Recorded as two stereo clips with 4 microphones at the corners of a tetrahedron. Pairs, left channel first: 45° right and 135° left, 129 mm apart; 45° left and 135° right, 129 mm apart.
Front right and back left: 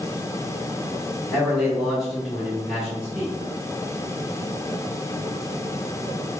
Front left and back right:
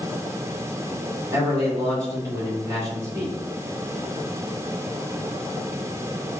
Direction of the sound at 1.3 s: 135° right.